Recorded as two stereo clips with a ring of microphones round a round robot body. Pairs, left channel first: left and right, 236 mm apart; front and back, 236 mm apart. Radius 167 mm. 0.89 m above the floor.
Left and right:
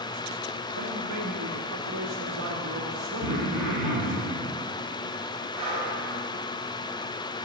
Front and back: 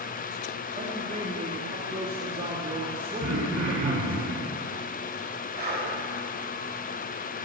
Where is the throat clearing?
135° right, 4.5 m.